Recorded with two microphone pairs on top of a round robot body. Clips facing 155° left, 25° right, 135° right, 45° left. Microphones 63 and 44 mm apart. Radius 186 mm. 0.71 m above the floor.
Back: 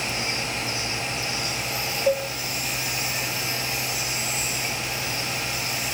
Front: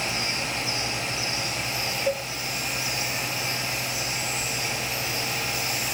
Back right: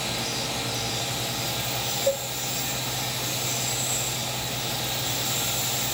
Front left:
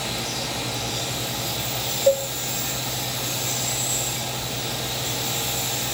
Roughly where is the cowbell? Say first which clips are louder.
Back 6 dB, front left 7 dB; left.